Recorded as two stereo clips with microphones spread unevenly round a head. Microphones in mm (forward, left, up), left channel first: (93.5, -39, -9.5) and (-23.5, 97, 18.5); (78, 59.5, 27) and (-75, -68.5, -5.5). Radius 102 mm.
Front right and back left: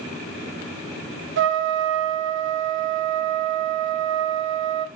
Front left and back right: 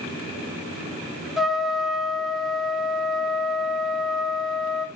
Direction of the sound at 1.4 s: 130° left.